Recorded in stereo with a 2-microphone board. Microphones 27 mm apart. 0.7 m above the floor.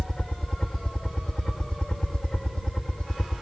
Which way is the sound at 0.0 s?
30° left (ahead or behind).